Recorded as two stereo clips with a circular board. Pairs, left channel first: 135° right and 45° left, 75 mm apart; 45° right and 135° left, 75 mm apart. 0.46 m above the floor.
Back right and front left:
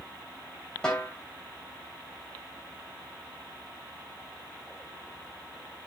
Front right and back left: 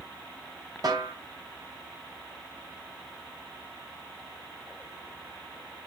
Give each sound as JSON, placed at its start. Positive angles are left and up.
{"t": 0.8, "sound": "a snare drum", "azimuth_deg": 145, "distance_m": 3.0}